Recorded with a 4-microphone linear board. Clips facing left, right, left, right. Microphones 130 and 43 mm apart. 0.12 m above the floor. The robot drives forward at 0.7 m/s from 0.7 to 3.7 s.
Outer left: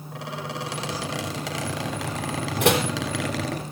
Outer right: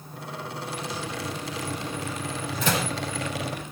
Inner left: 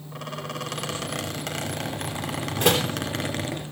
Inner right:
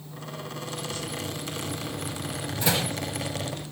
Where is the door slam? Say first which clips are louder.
Outer left 6 dB, inner left 5 dB; 70° left (ahead or behind), 3 m.